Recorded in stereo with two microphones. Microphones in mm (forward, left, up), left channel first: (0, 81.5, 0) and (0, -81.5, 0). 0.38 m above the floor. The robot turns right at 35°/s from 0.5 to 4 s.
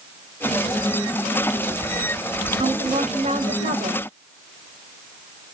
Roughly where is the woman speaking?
Behind right.